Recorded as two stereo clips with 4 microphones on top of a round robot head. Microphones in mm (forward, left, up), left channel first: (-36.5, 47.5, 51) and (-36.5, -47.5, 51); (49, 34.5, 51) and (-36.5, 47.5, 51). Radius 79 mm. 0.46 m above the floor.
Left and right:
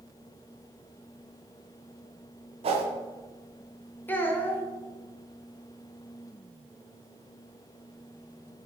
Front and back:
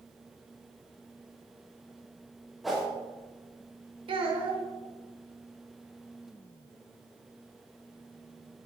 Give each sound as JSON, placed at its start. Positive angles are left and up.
{"t": 2.6, "sound": "a whoosh", "azimuth_deg": -100, "distance_m": 0.8}
{"t": 4.1, "sound": "a child speaking", "azimuth_deg": 160, "distance_m": 0.9}